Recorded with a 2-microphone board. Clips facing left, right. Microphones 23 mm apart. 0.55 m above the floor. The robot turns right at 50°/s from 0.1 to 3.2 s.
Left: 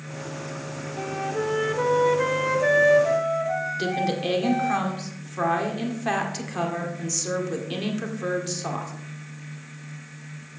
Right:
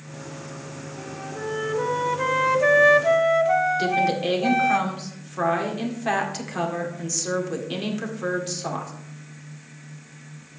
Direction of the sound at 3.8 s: Centre (ahead or behind).